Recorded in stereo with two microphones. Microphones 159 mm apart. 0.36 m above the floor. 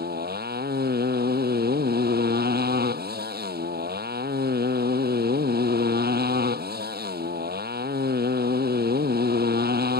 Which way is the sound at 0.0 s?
85° right.